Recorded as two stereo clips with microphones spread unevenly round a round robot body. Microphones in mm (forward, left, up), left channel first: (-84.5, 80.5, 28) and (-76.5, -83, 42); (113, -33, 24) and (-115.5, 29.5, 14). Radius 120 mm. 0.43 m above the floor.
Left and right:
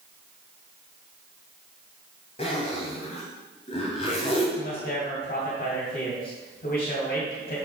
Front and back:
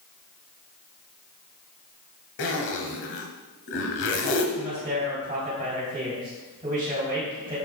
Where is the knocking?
No knocking in this recording.